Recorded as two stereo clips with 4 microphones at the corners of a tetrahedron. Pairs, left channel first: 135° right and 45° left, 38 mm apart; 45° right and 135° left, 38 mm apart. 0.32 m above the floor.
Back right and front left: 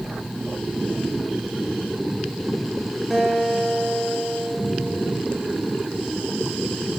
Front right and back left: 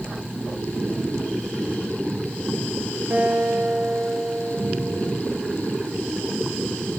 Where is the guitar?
135° left, 4.5 m.